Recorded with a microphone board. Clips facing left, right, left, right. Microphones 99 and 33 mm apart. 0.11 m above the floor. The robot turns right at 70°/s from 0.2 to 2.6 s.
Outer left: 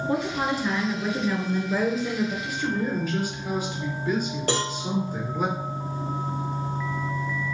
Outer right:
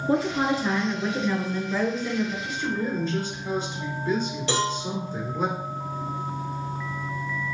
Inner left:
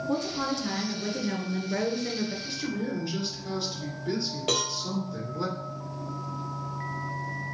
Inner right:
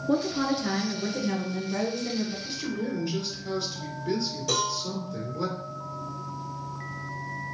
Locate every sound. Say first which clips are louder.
0.1 s a woman speaking: outer right 4 dB, inner right 5 dB; 60° right, 1.3 m; by 2.4 s 90° left, 1.3 m
2.5 s a man speaking: outer left 1 dB, even; 5° left (ahead or behind), 2.0 m; by 5.5 s 10° left (ahead or behind), 2.0 m
4.5 s a cowbell: outer right 2 dB, inner right 1 dB; 50° left (ahead or behind), 1.8 m